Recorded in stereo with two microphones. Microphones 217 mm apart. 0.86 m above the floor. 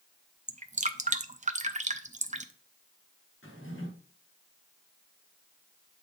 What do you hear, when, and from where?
0.5 s dripping: 35° right (ahead or behind), 0.5 m
3.4 s a drawer: 70° left (ahead or behind), 3.5 m